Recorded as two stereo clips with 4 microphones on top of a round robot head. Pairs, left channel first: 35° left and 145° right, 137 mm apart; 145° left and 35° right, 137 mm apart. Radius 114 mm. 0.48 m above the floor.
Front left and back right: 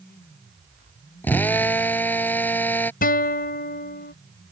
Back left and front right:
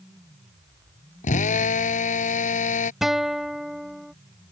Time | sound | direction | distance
1.2 | a drill | 115° left | ?
3.0 | a guitar | 50° left | ?